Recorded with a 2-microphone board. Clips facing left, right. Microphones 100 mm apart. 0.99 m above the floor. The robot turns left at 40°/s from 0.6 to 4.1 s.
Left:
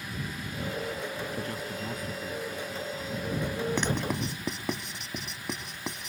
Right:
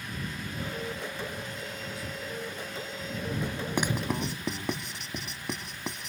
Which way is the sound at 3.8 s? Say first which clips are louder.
Even; 15° right (ahead or behind).